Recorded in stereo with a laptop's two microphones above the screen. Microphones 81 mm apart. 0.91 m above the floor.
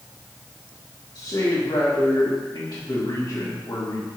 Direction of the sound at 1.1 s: 50° left (ahead or behind).